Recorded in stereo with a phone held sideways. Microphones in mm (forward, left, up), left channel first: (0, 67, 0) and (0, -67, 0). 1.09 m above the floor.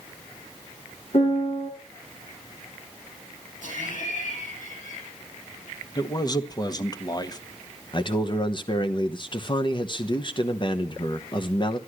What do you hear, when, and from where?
1.1 s a piano: 55° left (ahead or behind), 3 m
3.6 s laughter: 70° left (ahead or behind), 10 m
6.0 s a man speaking: 30° left (ahead or behind), 1.0 m
7.9 s a man speaking: 35° left (ahead or behind), 1.1 m